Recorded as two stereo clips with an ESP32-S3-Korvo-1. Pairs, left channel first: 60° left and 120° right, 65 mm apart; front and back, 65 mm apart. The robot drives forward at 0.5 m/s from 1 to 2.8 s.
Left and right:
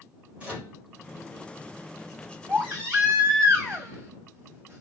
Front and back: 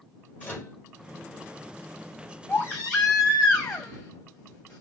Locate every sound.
0.4 s a microwave: 55° right, 1.6 m
2.5 s a baby crying: 65° right, 2.0 m; by 4.8 s 70° right, 1.9 m